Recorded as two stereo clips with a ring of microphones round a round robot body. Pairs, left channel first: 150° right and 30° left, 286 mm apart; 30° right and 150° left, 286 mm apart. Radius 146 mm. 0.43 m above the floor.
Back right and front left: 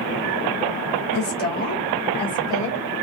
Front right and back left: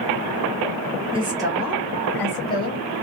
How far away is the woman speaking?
About 1.4 m.